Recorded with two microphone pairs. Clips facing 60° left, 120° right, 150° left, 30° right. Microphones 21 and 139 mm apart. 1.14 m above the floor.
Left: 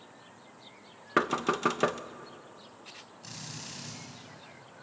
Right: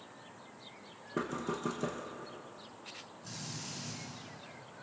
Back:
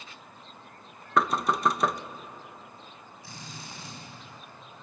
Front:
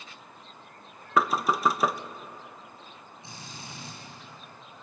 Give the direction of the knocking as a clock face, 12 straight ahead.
10 o'clock.